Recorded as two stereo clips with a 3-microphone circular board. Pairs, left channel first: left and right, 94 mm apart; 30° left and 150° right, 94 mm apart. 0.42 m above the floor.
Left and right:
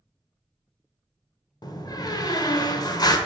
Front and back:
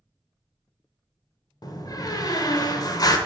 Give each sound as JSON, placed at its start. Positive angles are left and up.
{"t": 1.6, "sound": "a door slam", "azimuth_deg": 60, "distance_m": 0.8}